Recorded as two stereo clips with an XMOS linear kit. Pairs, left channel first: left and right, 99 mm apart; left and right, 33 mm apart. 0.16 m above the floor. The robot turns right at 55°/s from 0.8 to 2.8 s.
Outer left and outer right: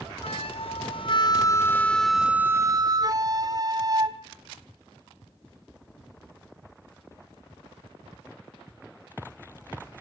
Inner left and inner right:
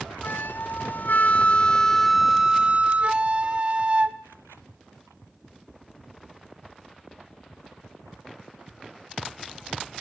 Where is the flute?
110° left, 1.2 m; by 4.2 s 140° right, 1.2 m.